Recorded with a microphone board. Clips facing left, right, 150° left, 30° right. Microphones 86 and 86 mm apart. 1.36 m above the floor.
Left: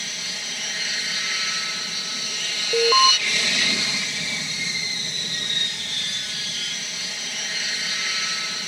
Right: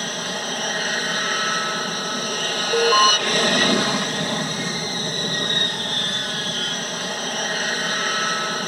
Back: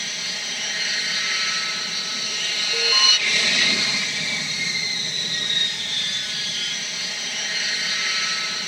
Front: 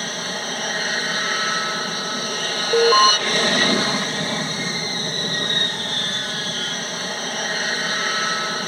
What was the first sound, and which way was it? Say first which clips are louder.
An aircraft: right 9 dB, front 7 dB; 70° right.